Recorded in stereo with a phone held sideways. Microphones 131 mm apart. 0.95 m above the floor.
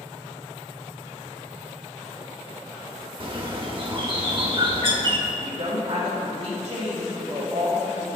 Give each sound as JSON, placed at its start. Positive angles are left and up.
{"t": 3.2, "sound": "a bird", "side_deg": -40, "distance_m": 0.7}
{"t": 5.3, "sound": "a woman speaking", "side_deg": -45, "distance_m": 1.7}